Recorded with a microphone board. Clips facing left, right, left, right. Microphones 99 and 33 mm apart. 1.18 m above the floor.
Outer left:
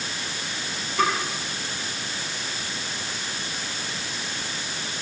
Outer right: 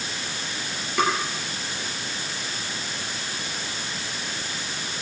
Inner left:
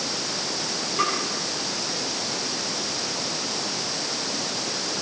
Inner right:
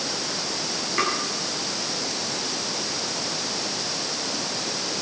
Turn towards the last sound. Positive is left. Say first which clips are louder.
# even, even
turn(degrees=-75)  # may be behind; listen again after turning